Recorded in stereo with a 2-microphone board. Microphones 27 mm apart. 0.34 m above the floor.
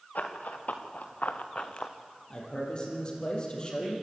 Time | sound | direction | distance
0.1 | running footsteps | 85° left | 3 m
2.3 | a man speaking | 35° left (ahead or behind) | 9 m